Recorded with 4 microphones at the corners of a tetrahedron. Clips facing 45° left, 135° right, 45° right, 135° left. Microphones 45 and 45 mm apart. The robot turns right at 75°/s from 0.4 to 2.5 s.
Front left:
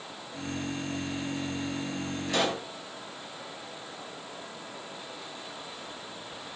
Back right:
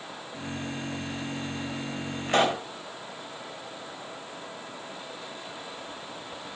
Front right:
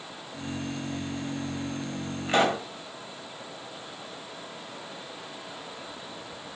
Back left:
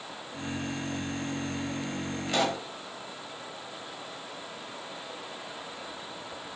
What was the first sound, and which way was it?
A pop, 105° right.